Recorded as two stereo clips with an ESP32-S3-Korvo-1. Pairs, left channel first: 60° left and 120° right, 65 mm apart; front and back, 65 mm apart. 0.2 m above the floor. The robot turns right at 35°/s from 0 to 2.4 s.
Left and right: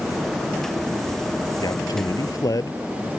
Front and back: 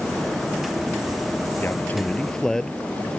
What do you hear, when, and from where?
1.6 s a man speaking: 55° left; by 2.8 s 85° left